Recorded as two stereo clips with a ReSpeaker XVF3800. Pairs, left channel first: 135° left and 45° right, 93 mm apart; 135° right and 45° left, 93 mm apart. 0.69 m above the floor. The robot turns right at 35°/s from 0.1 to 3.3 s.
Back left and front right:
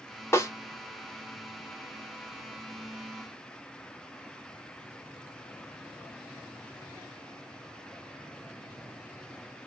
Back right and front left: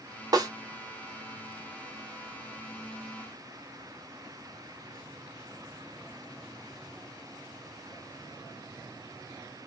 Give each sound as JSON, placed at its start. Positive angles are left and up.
{"t": 0.3, "sound": "a snare drum", "azimuth_deg": 80, "distance_m": 0.8}